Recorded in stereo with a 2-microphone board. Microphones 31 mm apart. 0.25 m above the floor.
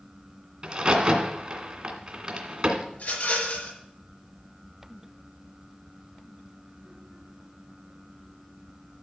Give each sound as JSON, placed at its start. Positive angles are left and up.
{"t": 0.6, "sound": "a crack", "side_deg": -35, "distance_m": 2.5}
{"t": 2.9, "sound": "a rattle", "side_deg": 50, "distance_m": 5.5}